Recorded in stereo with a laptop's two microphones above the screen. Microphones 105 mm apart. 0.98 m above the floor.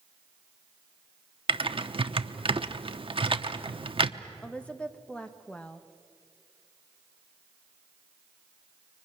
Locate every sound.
1.5 s typing on a keyboard: 55° right (ahead or behind), 0.8 m
4.4 s a woman speaking: 10° left (ahead or behind), 1.0 m